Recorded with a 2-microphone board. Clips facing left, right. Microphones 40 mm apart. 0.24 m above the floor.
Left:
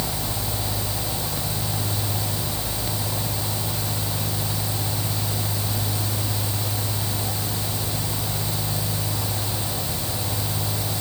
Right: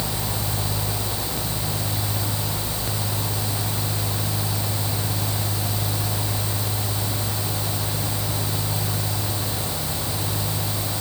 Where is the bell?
I don't hear a bell.